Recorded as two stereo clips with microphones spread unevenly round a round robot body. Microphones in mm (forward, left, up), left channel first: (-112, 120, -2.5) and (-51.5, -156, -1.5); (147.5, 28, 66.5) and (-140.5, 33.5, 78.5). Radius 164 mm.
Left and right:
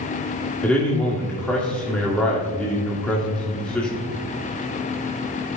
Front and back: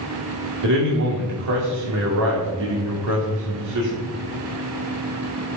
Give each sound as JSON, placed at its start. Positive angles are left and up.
{"t": 0.6, "sound": "a man speaking", "azimuth_deg": -170, "distance_m": 2.0}